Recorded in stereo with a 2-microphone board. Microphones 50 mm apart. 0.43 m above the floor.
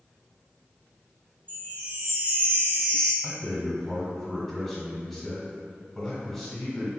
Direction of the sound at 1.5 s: 30° left (ahead or behind).